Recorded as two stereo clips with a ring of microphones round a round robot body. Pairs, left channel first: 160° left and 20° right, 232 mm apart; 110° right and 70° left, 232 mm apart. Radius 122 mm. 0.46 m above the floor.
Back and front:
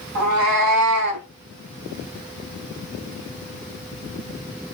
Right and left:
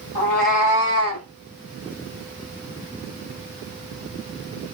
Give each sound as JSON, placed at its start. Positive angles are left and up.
{"t": 0.1, "sound": "a cat meowing", "azimuth_deg": -35, "distance_m": 1.0}